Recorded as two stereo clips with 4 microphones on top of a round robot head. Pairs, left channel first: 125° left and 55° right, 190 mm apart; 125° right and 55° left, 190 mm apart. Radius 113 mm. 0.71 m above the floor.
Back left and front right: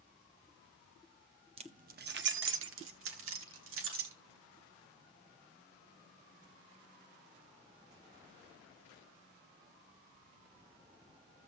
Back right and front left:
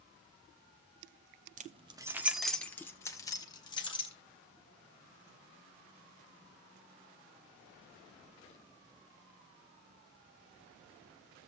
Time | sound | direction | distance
1.6 | keys jangling | 5° left | 0.9 m